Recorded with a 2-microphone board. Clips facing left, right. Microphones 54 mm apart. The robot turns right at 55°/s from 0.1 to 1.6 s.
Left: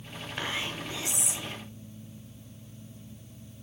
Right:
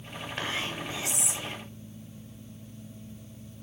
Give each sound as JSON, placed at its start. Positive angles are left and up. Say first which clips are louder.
{"t": 0.4, "sound": "whispering", "louder": "even", "side_deg": 0, "distance_m": 1.3}